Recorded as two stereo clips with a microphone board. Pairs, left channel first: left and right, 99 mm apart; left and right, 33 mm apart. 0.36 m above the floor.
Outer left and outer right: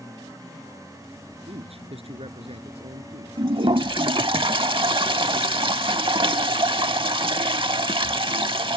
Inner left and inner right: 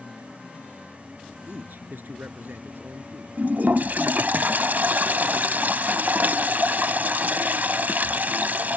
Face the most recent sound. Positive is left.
turn(degrees=-55)  # may be behind; listen again after turning